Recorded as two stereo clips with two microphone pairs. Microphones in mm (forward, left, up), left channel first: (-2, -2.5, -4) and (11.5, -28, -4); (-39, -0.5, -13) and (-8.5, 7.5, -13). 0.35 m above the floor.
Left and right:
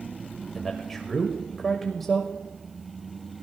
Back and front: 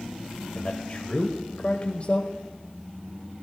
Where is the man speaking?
160° right, 1.2 m.